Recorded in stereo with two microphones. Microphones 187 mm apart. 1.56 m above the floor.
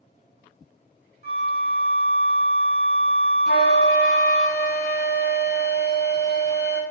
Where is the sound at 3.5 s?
60° left (ahead or behind), 1.2 m.